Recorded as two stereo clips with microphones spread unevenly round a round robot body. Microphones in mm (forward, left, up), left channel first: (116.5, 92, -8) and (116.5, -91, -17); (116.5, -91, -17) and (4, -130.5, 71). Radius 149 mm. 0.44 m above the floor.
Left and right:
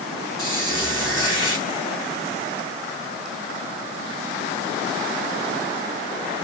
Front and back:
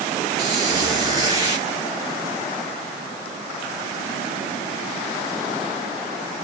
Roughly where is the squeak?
Behind.